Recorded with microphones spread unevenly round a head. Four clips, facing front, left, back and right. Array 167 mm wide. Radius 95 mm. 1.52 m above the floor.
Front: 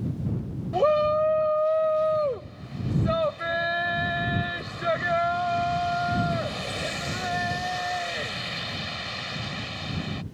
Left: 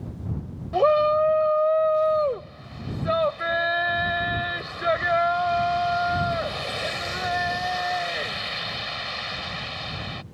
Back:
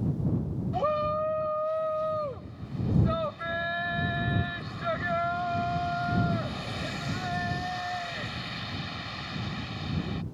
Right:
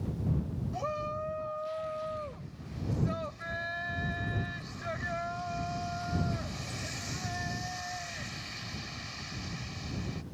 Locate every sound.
0.7 s a shout: 60° left